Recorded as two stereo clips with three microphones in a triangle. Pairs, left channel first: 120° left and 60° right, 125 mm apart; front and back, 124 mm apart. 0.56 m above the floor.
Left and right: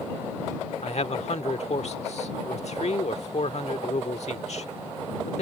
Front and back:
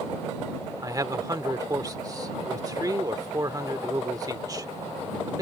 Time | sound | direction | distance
0.8 | a man speaking | 125° left | ?